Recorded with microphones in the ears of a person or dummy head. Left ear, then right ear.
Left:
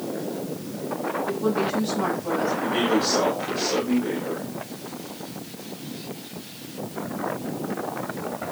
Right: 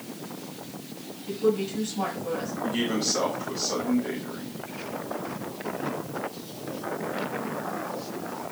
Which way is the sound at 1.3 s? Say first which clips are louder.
Right 1 dB; 25° right (ahead or behind).